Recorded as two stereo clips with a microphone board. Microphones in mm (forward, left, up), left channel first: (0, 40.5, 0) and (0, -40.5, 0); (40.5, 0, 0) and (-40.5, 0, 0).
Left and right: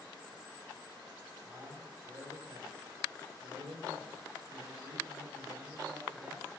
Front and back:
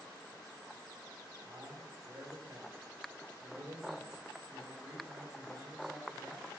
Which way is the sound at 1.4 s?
135° right.